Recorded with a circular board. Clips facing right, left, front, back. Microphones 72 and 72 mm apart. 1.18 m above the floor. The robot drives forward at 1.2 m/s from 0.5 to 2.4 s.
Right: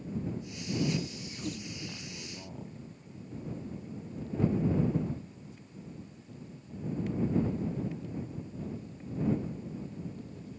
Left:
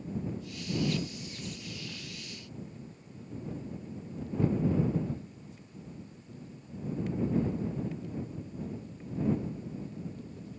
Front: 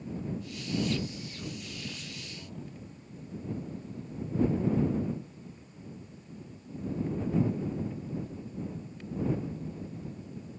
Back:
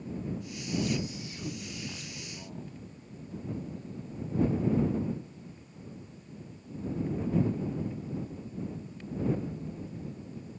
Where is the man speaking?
90° right, 2.5 m; by 2.7 s 115° right, 3 m.